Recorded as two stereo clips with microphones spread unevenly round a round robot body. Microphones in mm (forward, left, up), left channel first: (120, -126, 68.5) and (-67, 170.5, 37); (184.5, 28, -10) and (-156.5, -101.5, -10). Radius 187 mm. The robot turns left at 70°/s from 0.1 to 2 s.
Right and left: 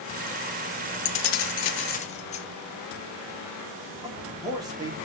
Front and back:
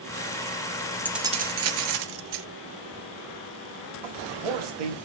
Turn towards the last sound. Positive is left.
turn(degrees=-160)